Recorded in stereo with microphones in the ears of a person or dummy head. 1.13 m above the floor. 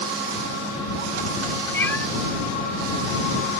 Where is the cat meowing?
15° left (ahead or behind).